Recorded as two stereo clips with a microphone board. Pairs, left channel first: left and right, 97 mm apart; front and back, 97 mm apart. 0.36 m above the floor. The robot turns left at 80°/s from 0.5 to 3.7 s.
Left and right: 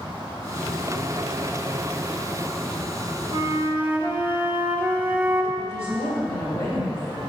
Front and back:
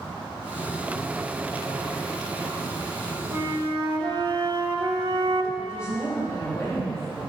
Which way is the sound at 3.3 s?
130° right.